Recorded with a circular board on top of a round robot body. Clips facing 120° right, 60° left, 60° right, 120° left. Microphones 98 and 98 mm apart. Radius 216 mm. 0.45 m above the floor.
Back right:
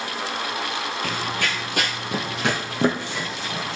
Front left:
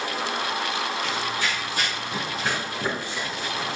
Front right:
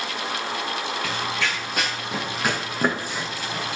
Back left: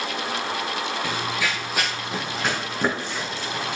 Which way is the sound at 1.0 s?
165° right.